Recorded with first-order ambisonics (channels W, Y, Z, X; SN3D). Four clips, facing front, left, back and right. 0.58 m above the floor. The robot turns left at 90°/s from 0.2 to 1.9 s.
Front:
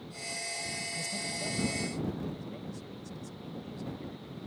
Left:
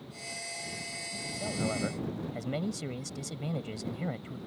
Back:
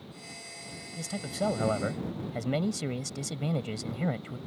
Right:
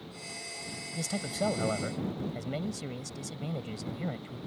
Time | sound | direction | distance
0.9 | a man speaking | 100° right | ?